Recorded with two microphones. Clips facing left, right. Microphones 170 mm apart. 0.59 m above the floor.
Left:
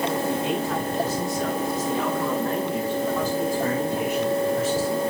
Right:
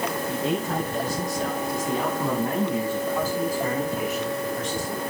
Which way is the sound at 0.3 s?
40° right (ahead or behind).